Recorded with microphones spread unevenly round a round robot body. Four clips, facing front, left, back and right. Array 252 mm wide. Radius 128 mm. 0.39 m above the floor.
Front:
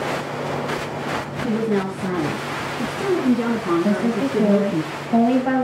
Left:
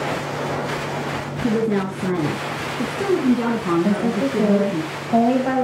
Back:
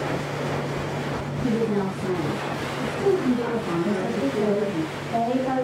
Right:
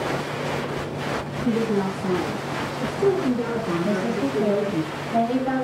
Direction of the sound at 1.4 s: 70° left.